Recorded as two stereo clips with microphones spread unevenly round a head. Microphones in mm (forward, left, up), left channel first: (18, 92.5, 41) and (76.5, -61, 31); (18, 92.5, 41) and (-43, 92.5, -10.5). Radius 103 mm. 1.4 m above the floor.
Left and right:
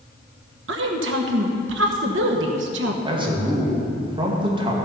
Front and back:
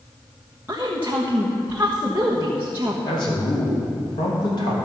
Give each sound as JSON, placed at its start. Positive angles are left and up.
{"t": 0.7, "sound": "a woman speaking", "azimuth_deg": -95, "distance_m": 1.1}
{"t": 3.0, "sound": "a man speaking", "azimuth_deg": -10, "distance_m": 2.5}